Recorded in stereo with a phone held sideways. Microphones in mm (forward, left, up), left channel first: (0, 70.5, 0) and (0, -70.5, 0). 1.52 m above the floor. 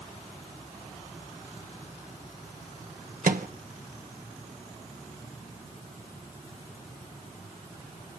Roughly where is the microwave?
Right.